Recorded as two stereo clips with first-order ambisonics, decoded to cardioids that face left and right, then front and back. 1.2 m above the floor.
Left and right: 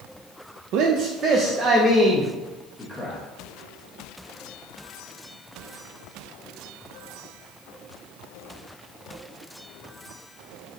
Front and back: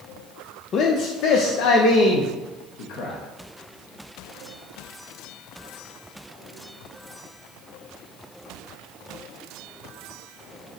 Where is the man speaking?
55° right, 0.5 m; by 3.2 s straight ahead, 1.5 m.